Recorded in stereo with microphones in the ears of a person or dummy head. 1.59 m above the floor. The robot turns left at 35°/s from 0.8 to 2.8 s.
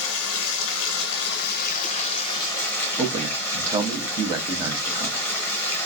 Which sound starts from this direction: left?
Running water, at 0.0 s.